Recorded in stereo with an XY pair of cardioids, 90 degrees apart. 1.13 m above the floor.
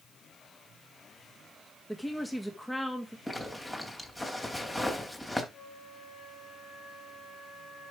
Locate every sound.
1.9 s a woman speaking: 5° left, 2 m
3.3 s a zipper: 15° left, 3 m
5.5 s a flute: 60° left, 4.5 m